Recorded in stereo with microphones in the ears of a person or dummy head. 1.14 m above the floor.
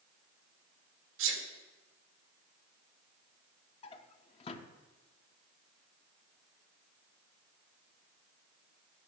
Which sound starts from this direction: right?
A sneeze, at 1.2 s.